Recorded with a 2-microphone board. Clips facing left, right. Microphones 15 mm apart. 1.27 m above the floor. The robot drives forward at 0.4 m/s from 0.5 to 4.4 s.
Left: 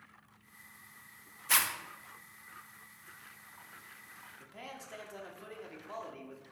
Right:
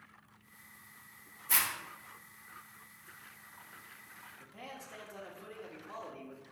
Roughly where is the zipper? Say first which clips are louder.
Left 3 dB; left.